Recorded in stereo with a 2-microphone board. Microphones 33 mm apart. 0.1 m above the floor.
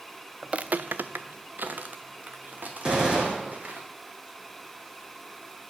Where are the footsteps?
25° right (ahead or behind), 0.6 m; by 3.8 s 50° right (ahead or behind), 3.5 m.